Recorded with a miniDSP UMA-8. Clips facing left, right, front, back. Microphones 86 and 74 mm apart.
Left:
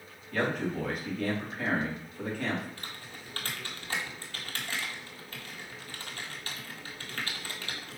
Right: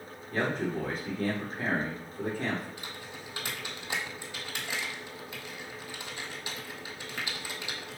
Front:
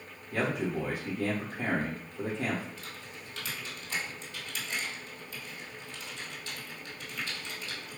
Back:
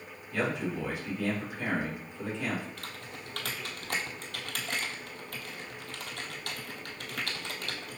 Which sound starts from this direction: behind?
Typing on a keyboard, at 2.8 s.